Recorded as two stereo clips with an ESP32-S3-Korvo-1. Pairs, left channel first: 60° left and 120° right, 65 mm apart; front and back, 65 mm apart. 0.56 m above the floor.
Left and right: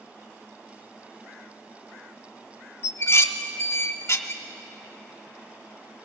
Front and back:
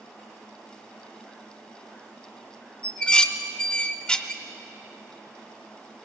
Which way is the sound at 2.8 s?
70° left.